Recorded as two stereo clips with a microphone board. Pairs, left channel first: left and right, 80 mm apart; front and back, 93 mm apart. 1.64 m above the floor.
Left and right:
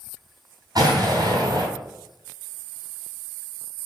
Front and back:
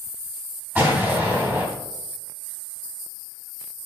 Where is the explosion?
115° right, 3 m.